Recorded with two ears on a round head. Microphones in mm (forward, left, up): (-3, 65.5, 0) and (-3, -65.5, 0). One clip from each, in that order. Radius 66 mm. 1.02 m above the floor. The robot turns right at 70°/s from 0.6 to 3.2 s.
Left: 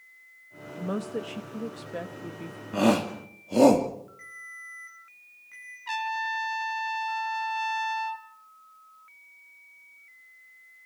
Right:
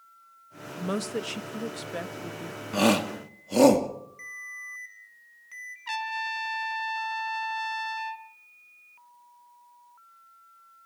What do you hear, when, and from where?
0.8 s a woman speaking: 120° right, 1.0 m; by 2.6 s 5° left, 1.0 m
2.7 s a shout: 70° right (ahead or behind), 2.5 m; by 3.9 s 40° right (ahead or behind), 2.5 m
4.2 s a ringtone: 70° right (ahead or behind), 8 m
5.9 s a trumpet: 20° right (ahead or behind), 1.5 m